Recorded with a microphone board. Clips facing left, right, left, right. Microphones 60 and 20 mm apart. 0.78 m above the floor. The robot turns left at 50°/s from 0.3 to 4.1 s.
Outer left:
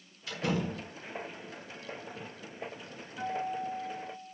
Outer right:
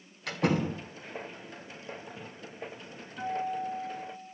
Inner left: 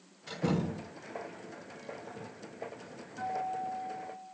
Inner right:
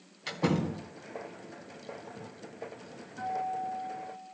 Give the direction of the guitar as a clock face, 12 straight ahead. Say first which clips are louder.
Outer right 2 dB, inner right 2 dB; 6 o'clock.